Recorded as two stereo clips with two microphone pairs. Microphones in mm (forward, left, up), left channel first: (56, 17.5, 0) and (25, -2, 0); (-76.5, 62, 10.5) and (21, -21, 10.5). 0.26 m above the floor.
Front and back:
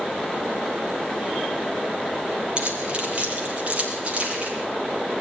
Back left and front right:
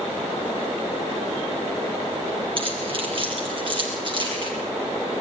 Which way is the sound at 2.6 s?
85° right.